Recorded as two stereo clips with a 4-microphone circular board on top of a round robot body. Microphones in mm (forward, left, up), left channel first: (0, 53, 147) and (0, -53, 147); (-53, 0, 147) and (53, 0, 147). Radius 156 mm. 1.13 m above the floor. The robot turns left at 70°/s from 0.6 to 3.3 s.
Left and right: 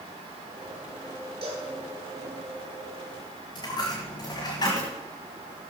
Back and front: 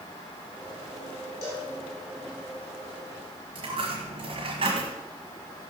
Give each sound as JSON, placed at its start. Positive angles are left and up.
{"t": 1.4, "sound": "a cowbell", "azimuth_deg": -120, "distance_m": 5.0}
{"t": 3.5, "sound": "a dropped coin", "azimuth_deg": 40, "distance_m": 1.4}